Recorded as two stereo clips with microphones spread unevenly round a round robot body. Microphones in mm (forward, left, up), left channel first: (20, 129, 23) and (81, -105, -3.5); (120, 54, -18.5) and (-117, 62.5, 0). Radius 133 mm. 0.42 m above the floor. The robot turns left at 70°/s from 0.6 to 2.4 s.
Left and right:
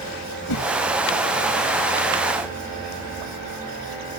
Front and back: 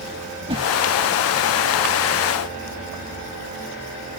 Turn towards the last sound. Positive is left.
turn(degrees=-15)